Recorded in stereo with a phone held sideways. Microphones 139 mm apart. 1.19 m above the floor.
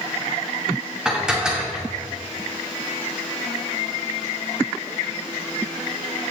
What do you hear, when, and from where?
1.1 s dishes clattering: 5° right (ahead or behind), 2 m